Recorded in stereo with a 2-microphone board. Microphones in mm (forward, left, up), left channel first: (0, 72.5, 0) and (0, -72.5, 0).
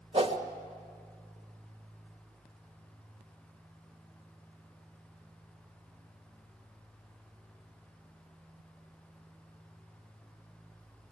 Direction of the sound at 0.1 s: 40° right (ahead or behind).